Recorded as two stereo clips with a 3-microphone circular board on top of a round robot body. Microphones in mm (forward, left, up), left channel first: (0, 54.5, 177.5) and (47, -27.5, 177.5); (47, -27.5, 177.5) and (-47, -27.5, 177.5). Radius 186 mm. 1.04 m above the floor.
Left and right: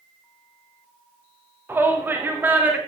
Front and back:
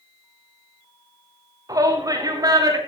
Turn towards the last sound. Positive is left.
turn(degrees=-130)